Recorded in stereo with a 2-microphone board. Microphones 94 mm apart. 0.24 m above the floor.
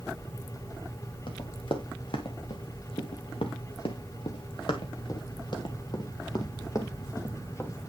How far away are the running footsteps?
About 2.5 m.